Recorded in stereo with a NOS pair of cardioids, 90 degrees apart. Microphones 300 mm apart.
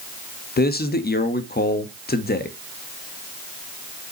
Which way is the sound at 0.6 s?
30° left.